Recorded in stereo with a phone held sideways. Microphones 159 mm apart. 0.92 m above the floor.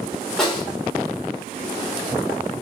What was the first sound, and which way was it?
A snare drum, centre (ahead or behind).